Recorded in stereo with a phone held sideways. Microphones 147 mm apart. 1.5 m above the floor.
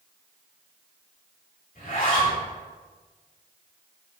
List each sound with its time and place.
1.8 s a zipper: 65° left (ahead or behind), 3 m